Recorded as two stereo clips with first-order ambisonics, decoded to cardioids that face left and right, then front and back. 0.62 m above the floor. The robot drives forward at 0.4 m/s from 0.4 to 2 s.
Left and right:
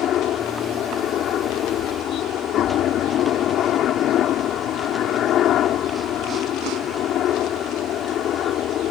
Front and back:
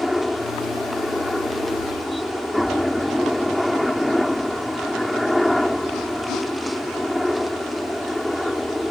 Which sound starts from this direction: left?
A helicopter, at 0.0 s.